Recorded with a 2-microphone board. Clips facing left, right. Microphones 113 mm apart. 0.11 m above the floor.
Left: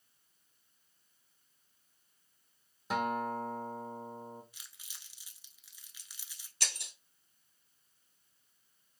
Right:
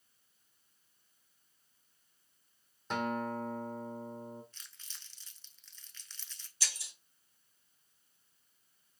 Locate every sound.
2.9 s a guitar: 5° left (ahead or behind), 0.7 m
4.5 s crumpling: 10° left (ahead or behind), 0.5 m
6.6 s breaking glass: 65° left (ahead or behind), 0.8 m